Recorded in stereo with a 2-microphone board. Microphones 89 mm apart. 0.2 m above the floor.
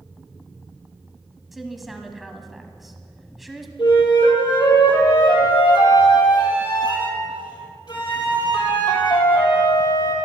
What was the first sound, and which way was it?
A woman speaking, centre (ahead or behind).